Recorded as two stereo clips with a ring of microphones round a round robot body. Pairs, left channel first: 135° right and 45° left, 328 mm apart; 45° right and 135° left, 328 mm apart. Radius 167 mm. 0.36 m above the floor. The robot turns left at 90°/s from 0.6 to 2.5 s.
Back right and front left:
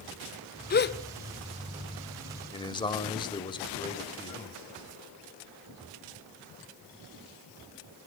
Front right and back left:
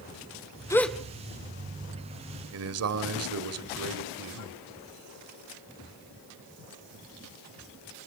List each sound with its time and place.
0.7 s a gasp: 115° right, 1.4 m; by 1.0 s 145° right, 1.4 m
2.5 s a man speaking: 155° left, 2.0 m